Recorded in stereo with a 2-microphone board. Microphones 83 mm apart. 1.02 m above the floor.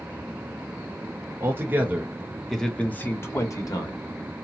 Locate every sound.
1.4 s a man speaking: 30° right (ahead or behind), 1.2 m; by 4.0 s 55° left (ahead or behind), 1.1 m